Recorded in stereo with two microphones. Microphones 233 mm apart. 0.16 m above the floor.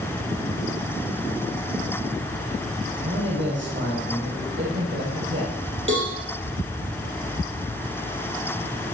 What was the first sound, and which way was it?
A man speaking, 50° right (ahead or behind).